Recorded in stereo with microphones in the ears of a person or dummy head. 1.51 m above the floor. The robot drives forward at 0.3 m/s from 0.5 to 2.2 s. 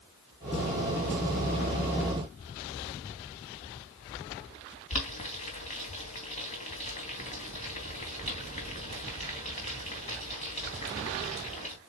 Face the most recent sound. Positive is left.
turn(degrees=35)  # may be behind; listen again after turning